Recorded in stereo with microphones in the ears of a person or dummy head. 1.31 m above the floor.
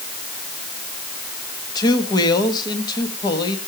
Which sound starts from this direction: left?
A man speaking, at 1.8 s.